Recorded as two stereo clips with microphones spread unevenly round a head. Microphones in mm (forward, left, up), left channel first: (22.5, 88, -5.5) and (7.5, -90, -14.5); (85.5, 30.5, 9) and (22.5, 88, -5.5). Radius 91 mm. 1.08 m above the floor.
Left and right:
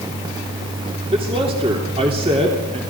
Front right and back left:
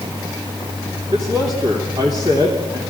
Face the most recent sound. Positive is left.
turn(degrees=-155)